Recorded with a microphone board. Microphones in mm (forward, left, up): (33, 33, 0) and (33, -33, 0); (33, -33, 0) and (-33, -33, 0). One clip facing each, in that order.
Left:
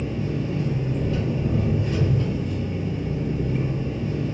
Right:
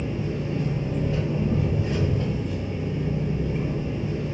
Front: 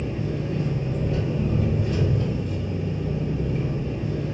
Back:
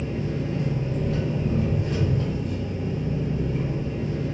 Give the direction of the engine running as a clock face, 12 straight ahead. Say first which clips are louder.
Left 1 dB, even; 5 o'clock.